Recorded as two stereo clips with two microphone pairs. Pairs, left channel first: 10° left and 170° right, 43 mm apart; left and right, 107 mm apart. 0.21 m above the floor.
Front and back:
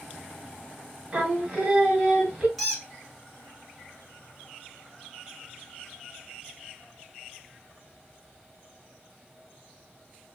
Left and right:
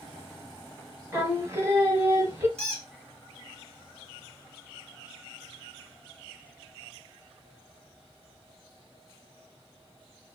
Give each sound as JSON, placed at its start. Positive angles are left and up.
{"t": 1.1, "sound": "singing", "azimuth_deg": -125, "distance_m": 1.0}
{"t": 2.6, "sound": "a squeak", "azimuth_deg": -80, "distance_m": 1.6}